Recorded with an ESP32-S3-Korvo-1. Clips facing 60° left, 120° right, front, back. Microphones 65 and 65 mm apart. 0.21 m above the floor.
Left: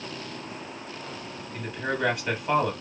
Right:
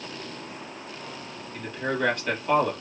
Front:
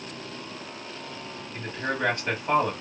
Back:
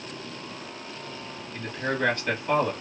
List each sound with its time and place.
1.5 s a man speaking: 10° right, 1.3 m